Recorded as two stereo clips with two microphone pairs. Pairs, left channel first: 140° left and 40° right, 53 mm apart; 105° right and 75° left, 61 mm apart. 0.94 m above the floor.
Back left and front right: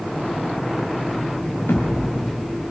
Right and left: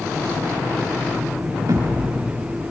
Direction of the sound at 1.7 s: 95° left.